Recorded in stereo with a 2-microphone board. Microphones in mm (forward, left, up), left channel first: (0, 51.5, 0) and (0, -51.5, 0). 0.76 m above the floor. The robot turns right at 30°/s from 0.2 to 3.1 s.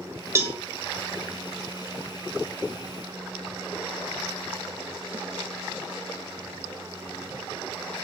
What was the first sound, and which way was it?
A cowbell, 25° right (ahead or behind).